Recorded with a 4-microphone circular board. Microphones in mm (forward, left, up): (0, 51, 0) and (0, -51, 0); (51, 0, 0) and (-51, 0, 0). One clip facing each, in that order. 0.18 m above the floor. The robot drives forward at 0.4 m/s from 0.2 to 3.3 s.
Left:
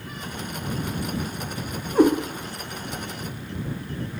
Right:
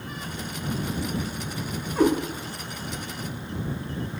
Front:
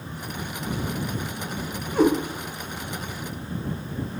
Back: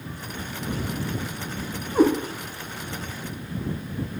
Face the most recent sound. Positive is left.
turn(degrees=135)